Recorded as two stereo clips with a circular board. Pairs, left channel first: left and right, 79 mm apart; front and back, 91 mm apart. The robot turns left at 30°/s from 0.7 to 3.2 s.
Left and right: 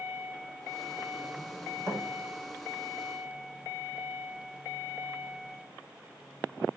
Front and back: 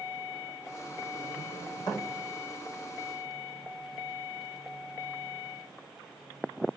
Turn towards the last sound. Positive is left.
turn(degrees=-80)